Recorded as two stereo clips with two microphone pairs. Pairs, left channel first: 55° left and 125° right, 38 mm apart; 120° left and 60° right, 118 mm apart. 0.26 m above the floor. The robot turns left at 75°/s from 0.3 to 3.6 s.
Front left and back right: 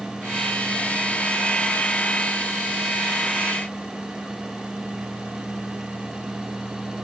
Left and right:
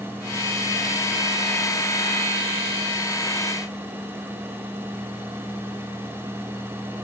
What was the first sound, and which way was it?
Only background noise.